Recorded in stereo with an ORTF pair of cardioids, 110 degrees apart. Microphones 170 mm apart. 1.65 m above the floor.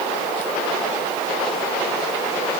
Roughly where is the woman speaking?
I don't hear a woman speaking.